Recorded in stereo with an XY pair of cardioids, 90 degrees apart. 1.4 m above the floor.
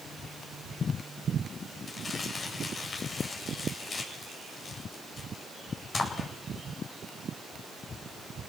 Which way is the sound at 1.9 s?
50° left.